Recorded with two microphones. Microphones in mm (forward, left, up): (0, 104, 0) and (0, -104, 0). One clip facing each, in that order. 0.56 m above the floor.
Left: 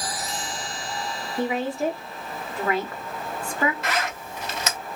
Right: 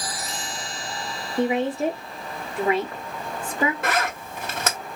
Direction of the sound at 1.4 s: 20° right (ahead or behind).